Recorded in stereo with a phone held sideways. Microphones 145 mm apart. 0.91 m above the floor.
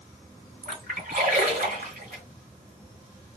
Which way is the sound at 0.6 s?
75° right (ahead or behind).